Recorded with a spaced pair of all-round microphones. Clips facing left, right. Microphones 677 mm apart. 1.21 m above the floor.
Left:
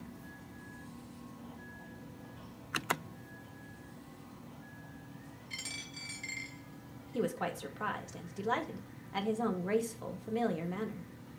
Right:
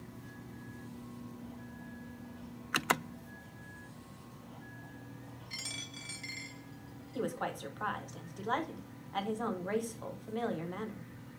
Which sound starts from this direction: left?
A woman speaking, at 7.1 s.